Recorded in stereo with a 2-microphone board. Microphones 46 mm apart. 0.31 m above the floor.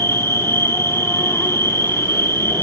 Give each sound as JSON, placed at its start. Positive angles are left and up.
{"t": 0.0, "sound": "an insect", "side_deg": 60, "distance_m": 1.0}